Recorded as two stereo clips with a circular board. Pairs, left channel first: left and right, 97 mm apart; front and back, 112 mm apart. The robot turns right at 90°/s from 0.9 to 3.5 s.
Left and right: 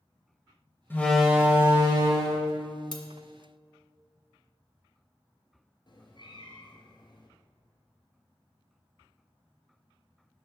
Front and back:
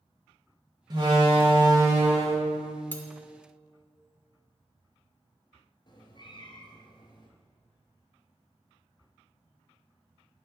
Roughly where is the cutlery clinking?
Ahead left.